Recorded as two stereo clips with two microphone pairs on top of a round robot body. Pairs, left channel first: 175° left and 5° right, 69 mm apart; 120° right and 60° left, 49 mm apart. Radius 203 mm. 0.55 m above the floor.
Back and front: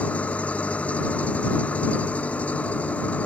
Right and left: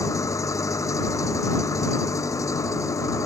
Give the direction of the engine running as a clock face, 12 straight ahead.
4 o'clock.